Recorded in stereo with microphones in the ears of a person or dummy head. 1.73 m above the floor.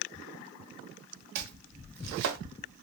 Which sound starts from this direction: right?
Chopping, at 1.4 s.